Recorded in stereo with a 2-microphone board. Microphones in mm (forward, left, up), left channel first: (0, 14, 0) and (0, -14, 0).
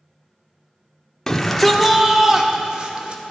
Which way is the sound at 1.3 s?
15° left (ahead or behind).